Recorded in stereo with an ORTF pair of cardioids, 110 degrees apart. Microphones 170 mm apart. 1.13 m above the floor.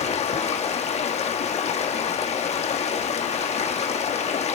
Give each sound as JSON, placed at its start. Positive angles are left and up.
{"t": 0.0, "sound": "running water", "azimuth_deg": 40, "distance_m": 1.4}